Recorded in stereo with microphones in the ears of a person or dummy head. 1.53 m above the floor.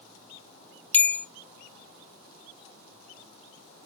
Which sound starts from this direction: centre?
A bell, at 0.9 s.